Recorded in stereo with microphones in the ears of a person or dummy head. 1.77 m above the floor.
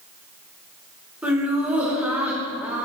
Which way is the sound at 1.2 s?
20° right (ahead or behind).